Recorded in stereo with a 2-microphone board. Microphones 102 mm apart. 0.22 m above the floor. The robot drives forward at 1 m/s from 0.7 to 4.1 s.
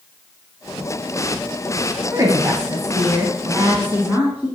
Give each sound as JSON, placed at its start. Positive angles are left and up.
{"t": 2.1, "sound": "a woman speaking", "side_deg": -30, "distance_m": 1.5}